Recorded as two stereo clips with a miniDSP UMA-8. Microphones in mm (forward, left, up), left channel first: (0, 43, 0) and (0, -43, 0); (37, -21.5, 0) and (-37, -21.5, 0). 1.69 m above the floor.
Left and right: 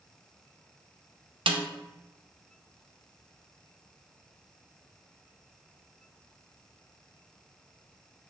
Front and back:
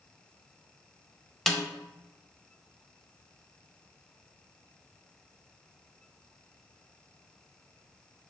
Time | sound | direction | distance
1.5 | a snare drum | 90° right | 0.5 m